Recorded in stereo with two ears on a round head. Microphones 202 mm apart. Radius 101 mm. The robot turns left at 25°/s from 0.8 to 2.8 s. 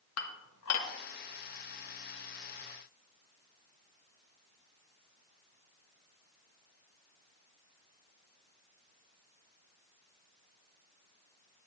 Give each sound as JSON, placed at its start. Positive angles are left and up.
{"t": 0.2, "sound": "dishes clattering", "side_deg": 70, "distance_m": 1.1}